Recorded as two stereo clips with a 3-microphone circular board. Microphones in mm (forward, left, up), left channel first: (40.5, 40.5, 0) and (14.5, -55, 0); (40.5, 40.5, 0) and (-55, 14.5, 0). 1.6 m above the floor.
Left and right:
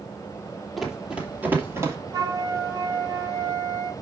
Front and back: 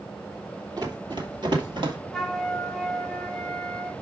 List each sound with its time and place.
0.8 s running footsteps: 170° left, 2.5 m; by 2.0 s 155° right, 2.5 m
2.1 s a flute: 70° right, 1.2 m